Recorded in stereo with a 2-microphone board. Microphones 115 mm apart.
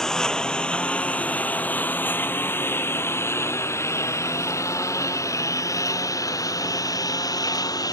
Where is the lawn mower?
5° left (ahead or behind); by 7.9 s 30° left (ahead or behind).